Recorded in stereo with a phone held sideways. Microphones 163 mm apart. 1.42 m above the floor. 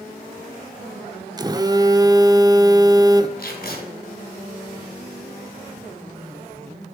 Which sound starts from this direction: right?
A phone buzzing, at 1.4 s.